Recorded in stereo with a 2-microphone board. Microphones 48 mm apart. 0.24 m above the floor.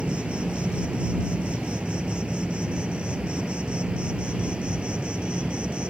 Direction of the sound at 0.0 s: 25° right (ahead or behind).